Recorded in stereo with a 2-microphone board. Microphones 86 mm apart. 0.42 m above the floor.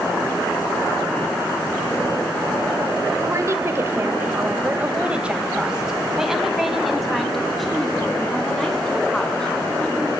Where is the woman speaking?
40° right (ahead or behind), 1.6 m; by 10.1 s 10° left (ahead or behind), 4.5 m.